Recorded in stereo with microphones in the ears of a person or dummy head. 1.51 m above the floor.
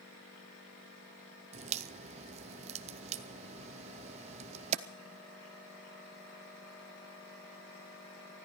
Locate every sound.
1.5 s a crack: 35° right (ahead or behind), 0.7 m